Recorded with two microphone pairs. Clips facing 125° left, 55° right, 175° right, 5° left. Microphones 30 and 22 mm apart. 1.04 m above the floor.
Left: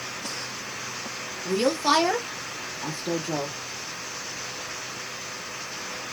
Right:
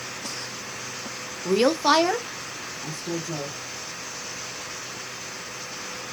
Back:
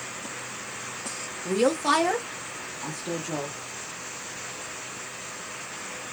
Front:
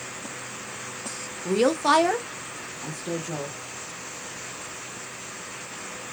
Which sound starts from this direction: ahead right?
A woman speaking, at 1.4 s.